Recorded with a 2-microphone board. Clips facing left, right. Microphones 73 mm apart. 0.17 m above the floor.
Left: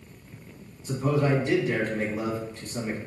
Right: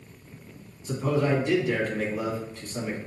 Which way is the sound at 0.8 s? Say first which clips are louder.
Even; 20° left (ahead or behind).